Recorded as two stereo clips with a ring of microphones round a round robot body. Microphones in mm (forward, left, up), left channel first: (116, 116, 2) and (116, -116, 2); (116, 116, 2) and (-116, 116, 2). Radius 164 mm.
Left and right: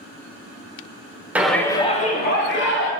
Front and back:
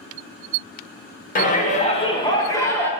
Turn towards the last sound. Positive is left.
turn(degrees=80)